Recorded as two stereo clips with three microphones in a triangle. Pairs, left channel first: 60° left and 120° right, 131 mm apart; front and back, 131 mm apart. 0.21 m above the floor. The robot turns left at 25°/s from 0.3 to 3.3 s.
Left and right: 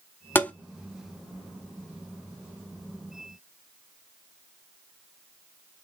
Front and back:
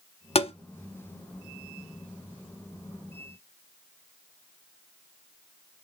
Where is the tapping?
10° right, 0.5 m; by 0.5 s 15° right, 0.5 m.